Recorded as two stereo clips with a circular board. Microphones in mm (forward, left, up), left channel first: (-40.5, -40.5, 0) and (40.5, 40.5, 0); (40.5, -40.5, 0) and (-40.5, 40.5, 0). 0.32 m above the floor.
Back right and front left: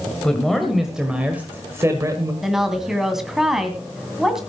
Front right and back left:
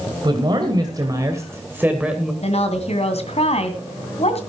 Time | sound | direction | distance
0.2 | a man speaking | 145° left | 2.0 m
2.4 | a woman speaking | 40° right | 2.5 m